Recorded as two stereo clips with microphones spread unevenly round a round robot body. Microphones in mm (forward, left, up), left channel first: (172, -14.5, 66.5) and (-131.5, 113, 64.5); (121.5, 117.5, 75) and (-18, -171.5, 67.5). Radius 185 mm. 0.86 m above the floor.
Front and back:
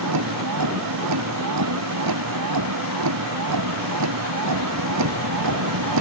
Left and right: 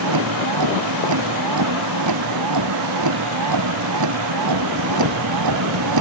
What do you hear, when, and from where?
0.0 s a vehicle: 155° right